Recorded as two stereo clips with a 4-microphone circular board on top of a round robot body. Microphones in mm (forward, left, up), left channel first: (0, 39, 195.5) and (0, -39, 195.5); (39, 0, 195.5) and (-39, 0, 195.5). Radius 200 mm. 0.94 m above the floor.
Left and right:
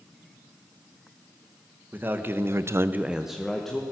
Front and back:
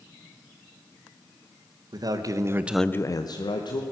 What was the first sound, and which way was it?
A man speaking, 155° right.